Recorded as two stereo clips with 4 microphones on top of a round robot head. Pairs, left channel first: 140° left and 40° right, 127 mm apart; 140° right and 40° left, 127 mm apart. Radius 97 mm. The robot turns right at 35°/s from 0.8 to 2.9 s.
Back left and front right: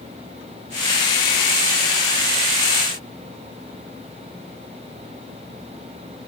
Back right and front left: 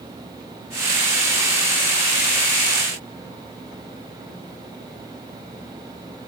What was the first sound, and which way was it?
Only background noise.